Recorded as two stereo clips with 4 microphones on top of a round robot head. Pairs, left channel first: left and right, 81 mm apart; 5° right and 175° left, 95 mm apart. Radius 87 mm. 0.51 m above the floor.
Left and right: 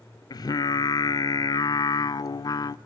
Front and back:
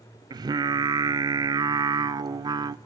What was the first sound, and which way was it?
Singing, 130° left.